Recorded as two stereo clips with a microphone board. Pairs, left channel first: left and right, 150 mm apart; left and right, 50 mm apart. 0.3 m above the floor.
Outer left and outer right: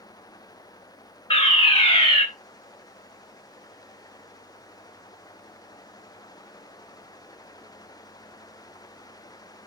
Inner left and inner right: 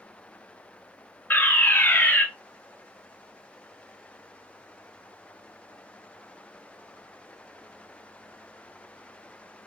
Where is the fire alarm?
35° left (ahead or behind), 2.5 m.